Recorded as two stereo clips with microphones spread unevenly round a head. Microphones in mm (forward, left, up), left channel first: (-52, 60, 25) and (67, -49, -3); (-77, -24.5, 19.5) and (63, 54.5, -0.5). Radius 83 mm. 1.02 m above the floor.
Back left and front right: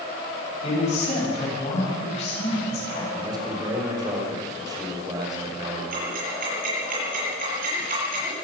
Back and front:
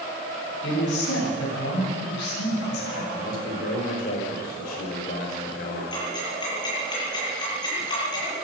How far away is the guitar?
I don't hear a guitar.